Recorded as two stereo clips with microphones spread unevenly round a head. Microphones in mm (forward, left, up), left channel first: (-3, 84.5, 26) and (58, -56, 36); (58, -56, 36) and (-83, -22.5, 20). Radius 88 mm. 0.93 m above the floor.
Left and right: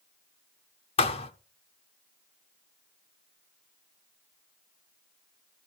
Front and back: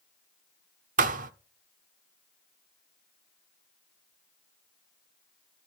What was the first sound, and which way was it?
A thud, 160° left.